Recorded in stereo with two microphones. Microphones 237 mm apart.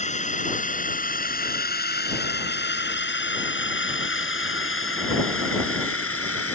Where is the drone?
30° left (ahead or behind); by 6.6 s 65° left (ahead or behind).